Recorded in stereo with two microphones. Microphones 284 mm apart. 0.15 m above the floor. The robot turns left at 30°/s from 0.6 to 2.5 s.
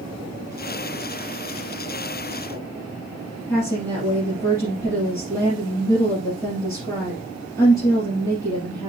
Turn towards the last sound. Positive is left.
turn(degrees=10)  # may be behind; listen again after turning